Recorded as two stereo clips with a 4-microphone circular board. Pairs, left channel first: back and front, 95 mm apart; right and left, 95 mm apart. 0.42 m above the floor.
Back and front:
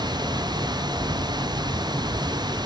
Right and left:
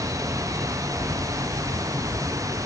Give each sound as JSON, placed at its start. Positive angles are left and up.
{"t": 0.0, "sound": "running water", "azimuth_deg": 40}